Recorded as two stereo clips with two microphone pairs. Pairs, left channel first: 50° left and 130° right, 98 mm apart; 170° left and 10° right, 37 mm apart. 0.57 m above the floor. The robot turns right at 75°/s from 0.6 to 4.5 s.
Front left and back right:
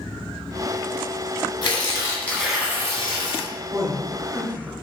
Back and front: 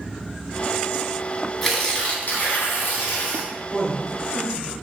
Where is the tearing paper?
80° left, 1.2 m; by 3.5 s 135° right, 1.2 m.